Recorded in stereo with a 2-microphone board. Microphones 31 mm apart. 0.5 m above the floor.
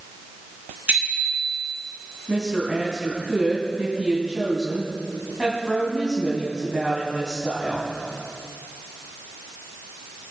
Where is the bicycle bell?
65° right (ahead or behind), 4 m.